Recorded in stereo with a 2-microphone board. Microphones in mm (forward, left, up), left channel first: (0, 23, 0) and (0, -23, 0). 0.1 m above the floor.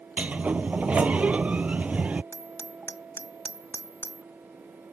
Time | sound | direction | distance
0.2 | a sliding door | 30° right (ahead or behind) | ?
2.3 | hammering | 65° left (ahead or behind) | ?